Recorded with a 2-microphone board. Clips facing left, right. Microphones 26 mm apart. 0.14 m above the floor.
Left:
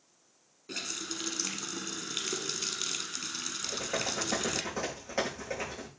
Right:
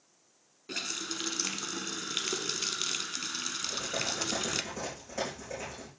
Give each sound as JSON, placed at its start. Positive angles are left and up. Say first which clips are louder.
{"t": 0.7, "sound": "a running tap", "louder": "right 2 dB", "side_deg": -10, "distance_m": 0.8}
{"t": 3.6, "sound": "typing on a keyboard", "louder": "left 2 dB", "side_deg": 50, "distance_m": 5.0}